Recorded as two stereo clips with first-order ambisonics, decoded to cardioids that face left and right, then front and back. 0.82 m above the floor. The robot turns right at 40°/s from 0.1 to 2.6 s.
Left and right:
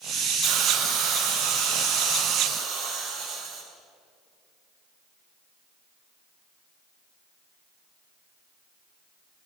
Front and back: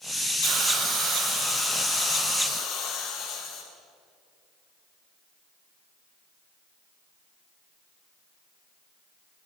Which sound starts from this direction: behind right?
A hiss, at 0.4 s.